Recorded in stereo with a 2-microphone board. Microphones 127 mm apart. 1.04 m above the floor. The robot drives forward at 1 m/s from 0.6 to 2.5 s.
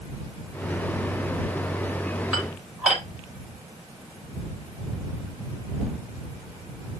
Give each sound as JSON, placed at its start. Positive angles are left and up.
{"t": 2.3, "sound": "dishes clattering", "side_deg": -5, "distance_m": 4.0}